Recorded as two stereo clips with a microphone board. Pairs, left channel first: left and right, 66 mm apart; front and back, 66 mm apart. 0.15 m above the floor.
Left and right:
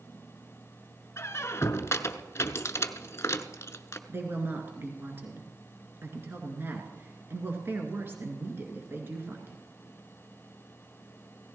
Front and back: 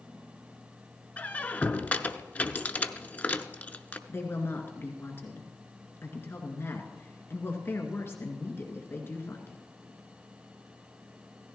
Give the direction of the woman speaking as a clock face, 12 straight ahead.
1 o'clock.